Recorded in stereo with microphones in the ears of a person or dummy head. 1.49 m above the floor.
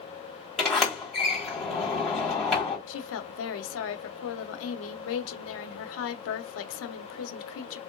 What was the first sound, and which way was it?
A sliding door, 5° left (ahead or behind).